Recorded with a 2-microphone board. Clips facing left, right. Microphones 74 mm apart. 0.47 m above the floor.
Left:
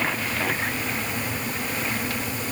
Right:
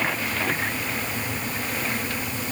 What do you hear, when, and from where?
Only background noise.